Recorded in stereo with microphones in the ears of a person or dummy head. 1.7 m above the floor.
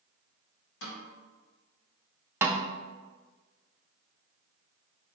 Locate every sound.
0.8 s a snare drum: 65° left (ahead or behind), 2.5 m
2.4 s a snare drum: 15° right (ahead or behind), 0.6 m